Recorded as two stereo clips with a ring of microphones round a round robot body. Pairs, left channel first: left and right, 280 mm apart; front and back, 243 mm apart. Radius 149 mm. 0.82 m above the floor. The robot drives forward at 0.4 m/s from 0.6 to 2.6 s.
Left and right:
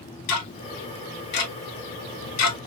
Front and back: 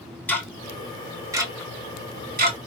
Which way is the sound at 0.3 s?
80° left.